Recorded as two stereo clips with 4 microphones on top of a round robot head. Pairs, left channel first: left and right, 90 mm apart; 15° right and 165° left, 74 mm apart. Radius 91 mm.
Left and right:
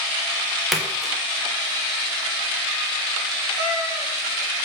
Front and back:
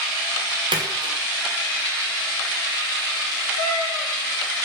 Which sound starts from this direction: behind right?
A cat meowing, at 3.6 s.